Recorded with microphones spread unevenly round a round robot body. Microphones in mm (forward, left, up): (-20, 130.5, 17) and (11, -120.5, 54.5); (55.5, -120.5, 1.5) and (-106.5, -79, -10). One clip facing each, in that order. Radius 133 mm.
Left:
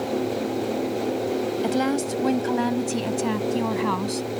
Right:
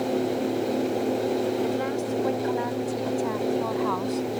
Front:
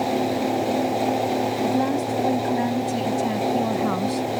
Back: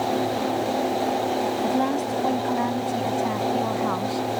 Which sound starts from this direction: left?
A woman speaking, at 1.6 s.